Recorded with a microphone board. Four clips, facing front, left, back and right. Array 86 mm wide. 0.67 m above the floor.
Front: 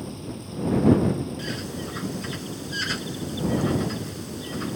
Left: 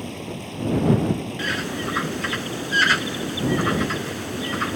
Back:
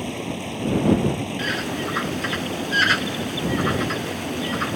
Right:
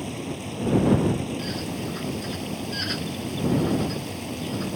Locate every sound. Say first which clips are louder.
0.0 s running water: even, back 7 dB; 175° left
1.4 s a bird: left 4 dB, back 6 dB; 130° left